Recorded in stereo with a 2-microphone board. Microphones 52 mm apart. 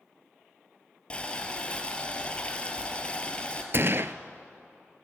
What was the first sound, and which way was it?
Boiling, 20° left (ahead or behind).